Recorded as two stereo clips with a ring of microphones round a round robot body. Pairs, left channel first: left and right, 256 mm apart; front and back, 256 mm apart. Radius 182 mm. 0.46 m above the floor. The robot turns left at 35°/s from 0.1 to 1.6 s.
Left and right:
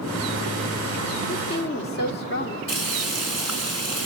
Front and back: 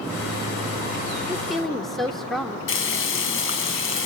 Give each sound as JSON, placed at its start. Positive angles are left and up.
{"t": 1.3, "sound": "a woman speaking", "azimuth_deg": 100, "distance_m": 1.4}
{"t": 2.7, "sound": "frying", "azimuth_deg": 35, "distance_m": 4.5}